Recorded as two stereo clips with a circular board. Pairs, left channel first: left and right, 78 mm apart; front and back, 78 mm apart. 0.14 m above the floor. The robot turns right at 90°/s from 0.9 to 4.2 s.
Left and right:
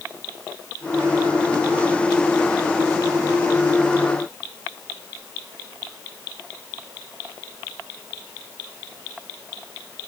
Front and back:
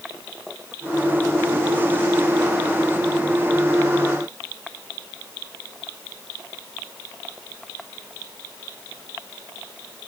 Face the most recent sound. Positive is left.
No sound to turn to.